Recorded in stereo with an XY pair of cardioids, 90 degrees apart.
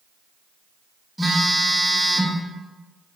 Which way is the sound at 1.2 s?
10° right.